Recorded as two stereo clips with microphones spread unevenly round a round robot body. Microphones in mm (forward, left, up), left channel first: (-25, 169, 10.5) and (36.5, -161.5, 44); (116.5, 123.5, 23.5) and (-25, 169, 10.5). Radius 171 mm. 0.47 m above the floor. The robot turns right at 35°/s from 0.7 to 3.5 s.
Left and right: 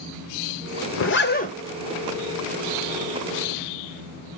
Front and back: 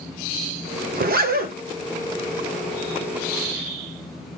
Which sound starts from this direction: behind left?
A zipper, at 0.9 s.